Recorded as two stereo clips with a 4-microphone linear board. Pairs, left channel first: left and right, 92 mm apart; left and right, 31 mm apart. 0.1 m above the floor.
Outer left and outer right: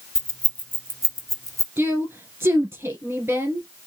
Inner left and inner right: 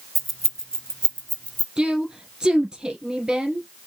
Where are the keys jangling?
5° left (ahead or behind), 0.8 m; by 1.7 s 40° left (ahead or behind), 1.0 m.